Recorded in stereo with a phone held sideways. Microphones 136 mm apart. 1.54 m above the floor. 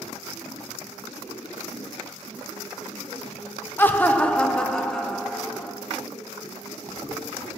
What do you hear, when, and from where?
3.8 s laughter: 15° left (ahead or behind), 0.6 m; by 5.8 s 5° left (ahead or behind), 1.5 m